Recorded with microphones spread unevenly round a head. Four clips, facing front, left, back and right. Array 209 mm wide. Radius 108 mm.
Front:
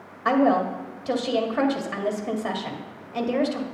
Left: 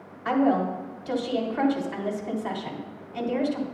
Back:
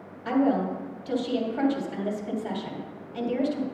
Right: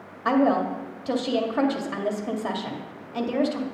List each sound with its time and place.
0.2 s a woman speaking: 40° right, 1.9 m